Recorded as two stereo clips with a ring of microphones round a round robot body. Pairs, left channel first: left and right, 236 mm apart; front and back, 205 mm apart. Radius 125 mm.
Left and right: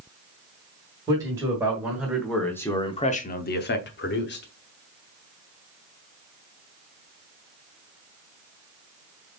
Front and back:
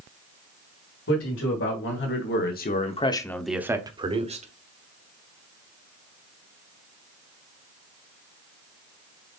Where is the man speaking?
15° right, 2 m; by 4.5 s 130° left, 1.4 m.